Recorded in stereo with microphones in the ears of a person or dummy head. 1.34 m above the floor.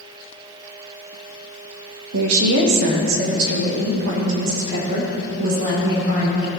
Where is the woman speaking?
80° right, 1.2 m; by 6.5 s 55° right (ahead or behind), 4 m.